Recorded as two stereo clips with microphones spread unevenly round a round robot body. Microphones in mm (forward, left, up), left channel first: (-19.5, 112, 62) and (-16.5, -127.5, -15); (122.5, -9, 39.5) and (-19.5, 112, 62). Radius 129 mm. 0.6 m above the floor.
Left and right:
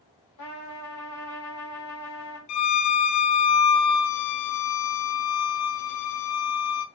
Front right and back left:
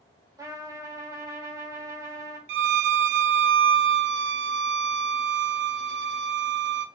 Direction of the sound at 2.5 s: 115° left.